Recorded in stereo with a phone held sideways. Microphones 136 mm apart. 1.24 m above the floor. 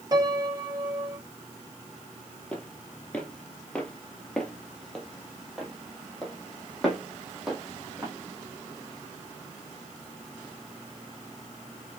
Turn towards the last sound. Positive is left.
turn(degrees=0)  # may be behind; listen again after turning